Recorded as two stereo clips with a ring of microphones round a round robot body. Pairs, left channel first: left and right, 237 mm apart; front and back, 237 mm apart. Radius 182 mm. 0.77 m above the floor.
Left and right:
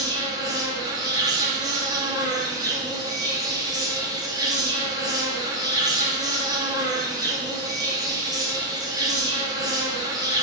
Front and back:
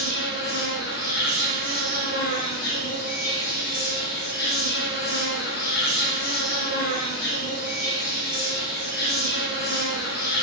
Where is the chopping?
No chopping in this recording.